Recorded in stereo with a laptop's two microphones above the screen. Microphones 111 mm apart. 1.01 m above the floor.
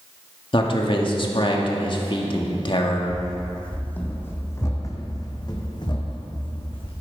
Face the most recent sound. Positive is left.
turn(degrees=50)  # may be behind; listen again after turning